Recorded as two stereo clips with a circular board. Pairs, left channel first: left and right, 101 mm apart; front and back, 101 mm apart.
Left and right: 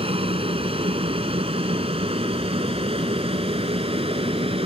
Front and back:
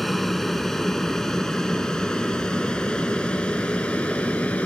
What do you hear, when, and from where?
0.0 s an aircraft: 90° right; by 4.7 s 75° right